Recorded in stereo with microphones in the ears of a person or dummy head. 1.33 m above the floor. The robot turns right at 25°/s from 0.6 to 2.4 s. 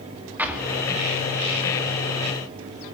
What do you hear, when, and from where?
0.4 s an explosion: 5° right (ahead or behind), 2.5 m; by 1.6 s 30° right (ahead or behind), 2.5 m